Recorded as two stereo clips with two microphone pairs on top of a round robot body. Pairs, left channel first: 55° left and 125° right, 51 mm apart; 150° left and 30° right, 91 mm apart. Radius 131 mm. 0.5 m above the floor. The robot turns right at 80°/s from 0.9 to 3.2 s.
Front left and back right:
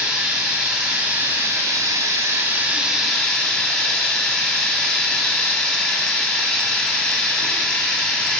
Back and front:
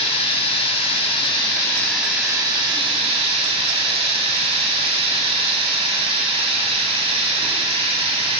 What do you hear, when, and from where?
0.0 s running water: 155° left, 1.8 m; by 8.4 s 20° right, 1.8 m